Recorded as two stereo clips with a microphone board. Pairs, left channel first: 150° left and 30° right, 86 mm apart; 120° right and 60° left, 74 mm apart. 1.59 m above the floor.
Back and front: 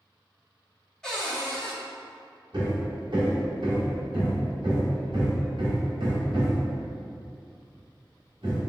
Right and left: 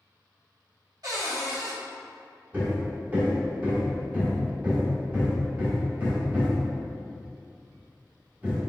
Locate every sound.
1.0 s a cupboard door: 70° left, 1.9 m
2.5 s hammering: 5° right, 1.7 m